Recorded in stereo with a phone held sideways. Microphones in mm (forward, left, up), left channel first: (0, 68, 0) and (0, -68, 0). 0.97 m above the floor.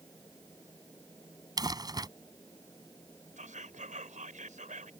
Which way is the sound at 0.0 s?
25° left (ahead or behind).